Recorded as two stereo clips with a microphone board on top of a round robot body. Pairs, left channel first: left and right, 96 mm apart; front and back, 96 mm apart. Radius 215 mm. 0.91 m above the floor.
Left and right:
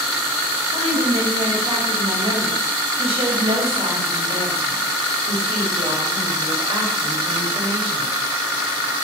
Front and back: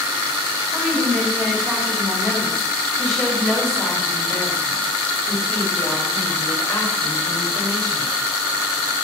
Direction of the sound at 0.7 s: 105° right.